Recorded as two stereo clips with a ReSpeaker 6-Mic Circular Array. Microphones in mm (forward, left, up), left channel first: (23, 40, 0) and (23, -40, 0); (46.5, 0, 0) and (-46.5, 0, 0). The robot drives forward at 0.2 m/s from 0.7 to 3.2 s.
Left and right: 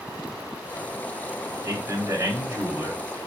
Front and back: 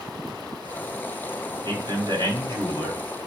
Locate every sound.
1.6 s a man speaking: 145° right, 1.5 m; by 3.0 s 150° right, 1.7 m